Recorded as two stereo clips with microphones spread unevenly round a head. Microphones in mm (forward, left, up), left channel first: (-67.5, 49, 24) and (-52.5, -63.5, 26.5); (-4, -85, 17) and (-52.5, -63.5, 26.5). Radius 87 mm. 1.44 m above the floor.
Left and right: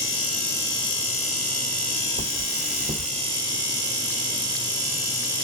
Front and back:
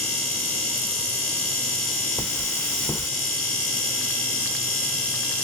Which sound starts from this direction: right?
Cutlery clinking, at 2.2 s.